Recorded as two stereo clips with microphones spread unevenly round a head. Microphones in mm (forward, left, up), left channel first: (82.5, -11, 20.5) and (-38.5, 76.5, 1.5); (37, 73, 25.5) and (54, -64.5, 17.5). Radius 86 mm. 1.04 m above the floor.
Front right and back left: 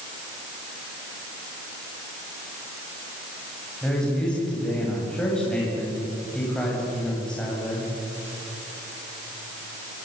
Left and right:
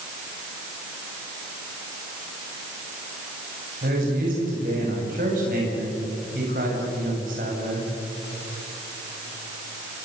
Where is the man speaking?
120° right, 7.5 m.